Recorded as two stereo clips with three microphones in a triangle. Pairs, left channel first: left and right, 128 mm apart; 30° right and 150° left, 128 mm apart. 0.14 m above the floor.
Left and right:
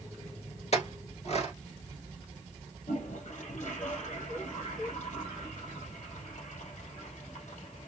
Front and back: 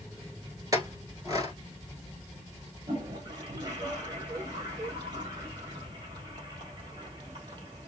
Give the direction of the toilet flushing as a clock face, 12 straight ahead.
9 o'clock.